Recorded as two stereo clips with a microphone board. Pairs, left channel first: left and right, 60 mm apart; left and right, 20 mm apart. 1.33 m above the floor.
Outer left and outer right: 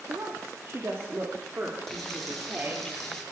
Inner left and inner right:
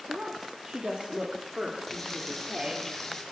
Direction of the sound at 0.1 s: 55° right (ahead or behind).